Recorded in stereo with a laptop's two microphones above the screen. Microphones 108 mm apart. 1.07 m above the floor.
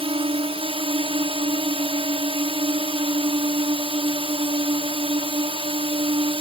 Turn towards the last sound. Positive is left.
turn(degrees=-60)  # may be behind; listen again after turning